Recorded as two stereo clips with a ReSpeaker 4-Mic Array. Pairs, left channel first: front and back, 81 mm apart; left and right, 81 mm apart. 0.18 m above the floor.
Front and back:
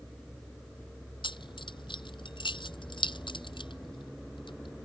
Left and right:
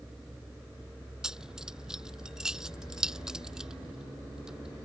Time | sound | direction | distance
1.2 | keys jangling | 5° right | ?